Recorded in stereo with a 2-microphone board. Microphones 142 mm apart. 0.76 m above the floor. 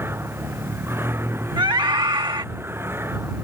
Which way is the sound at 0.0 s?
15° right (ahead or behind).